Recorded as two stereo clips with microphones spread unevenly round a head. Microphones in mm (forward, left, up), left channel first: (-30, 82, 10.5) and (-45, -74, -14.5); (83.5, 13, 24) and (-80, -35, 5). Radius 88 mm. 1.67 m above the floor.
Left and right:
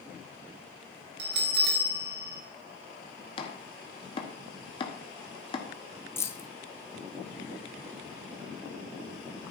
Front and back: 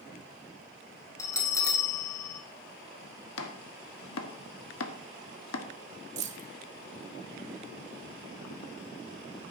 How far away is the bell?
About 2.0 m.